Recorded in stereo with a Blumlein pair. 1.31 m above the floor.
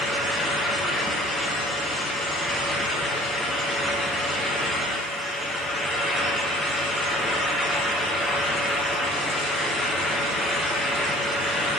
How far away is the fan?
About 1.0 m.